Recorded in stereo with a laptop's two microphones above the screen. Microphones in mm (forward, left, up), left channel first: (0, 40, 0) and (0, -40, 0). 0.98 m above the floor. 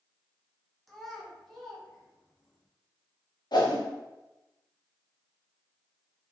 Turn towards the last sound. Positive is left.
turn(degrees=60)  # may be behind; listen again after turning